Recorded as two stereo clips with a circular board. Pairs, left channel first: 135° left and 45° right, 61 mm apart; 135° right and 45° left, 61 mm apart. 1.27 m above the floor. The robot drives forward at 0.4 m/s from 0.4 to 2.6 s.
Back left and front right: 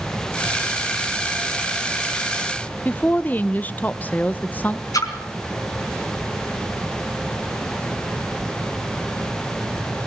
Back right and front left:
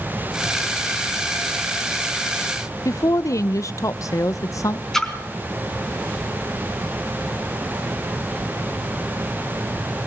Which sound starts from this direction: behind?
A woman speaking, at 2.9 s.